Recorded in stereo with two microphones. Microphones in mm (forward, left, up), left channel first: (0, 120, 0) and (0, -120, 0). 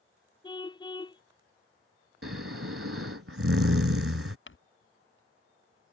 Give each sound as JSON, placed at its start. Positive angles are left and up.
{"t": 0.4, "sound": "a car horn", "side_deg": 20}
{"t": 2.2, "sound": "snoring", "side_deg": -65}
{"t": 4.5, "sound": "crumpling", "side_deg": 55}